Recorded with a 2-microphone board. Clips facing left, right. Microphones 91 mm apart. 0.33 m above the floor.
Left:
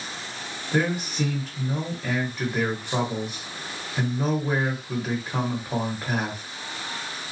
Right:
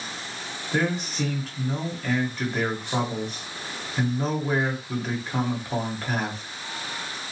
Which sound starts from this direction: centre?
A man speaking, at 0.7 s.